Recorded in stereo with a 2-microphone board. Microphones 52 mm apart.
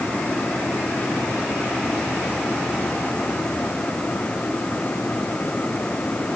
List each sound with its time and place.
Only background noise.